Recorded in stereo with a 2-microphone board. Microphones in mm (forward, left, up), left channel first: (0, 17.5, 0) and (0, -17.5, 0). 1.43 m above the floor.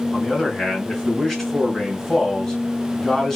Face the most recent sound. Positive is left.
turn(degrees=5)  # may be behind; listen again after turning